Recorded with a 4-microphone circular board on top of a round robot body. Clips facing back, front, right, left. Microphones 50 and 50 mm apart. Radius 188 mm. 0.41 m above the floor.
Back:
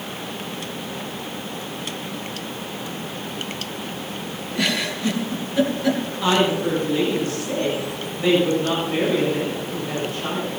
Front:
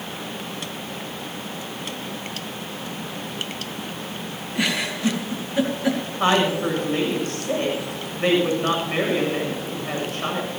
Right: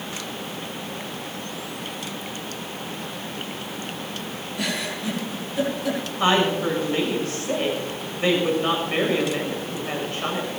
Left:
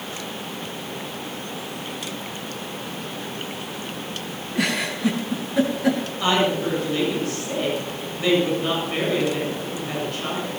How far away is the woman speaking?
About 7.5 m.